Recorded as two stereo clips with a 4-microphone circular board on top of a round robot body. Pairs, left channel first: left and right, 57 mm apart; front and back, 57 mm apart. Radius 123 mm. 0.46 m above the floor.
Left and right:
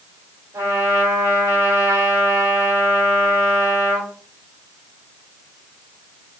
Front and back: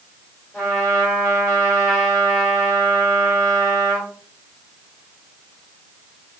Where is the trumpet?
80° right, 1.6 m.